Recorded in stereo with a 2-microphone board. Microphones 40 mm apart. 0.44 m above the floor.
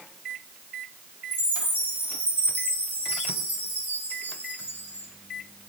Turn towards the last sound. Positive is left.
turn(degrees=45)  # may be behind; listen again after turning